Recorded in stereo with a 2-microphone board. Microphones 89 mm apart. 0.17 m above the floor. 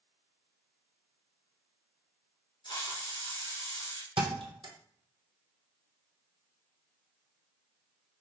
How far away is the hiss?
About 2.5 m.